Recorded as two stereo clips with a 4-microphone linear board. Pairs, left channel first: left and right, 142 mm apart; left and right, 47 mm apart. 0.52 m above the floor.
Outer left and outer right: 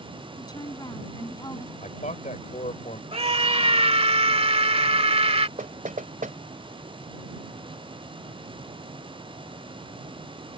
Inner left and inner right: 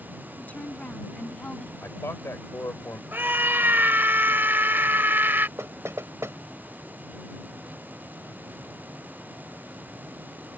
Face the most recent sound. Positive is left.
turn(degrees=-75)  # may be behind; listen again after turning